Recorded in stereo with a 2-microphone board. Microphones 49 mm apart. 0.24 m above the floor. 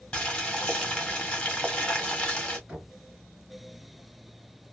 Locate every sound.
0.1 s boiling: 25° left (ahead or behind), 1.2 m
2.7 s knocking: 20° right (ahead or behind), 1.8 m